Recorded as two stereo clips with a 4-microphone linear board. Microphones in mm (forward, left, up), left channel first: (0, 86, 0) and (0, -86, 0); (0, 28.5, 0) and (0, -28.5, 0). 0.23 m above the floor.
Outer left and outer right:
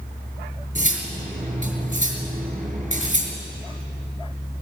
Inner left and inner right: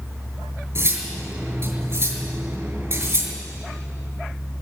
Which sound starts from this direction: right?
Cutlery clinking, at 0.8 s.